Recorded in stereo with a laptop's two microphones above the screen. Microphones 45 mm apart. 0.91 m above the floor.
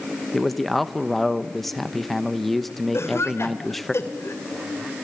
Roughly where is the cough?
Left.